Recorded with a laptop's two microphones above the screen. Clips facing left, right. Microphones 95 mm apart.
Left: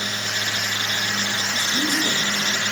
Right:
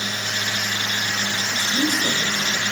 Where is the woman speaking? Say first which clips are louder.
Right 2 dB; 55° right (ahead or behind), 4 m; by 2.6 s 70° right (ahead or behind), 4.5 m.